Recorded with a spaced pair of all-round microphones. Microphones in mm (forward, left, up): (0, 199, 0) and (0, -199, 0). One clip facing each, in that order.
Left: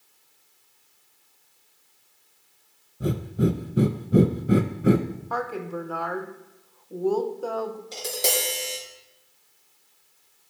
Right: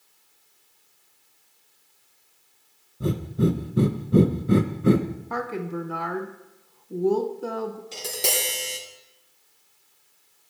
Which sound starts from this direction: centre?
Breathing, at 3.0 s.